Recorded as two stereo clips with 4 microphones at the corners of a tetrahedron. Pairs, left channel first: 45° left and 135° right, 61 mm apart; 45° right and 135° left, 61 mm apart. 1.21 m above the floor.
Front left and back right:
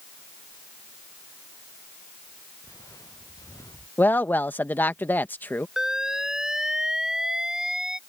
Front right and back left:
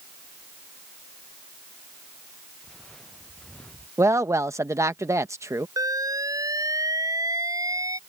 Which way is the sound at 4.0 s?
105° left.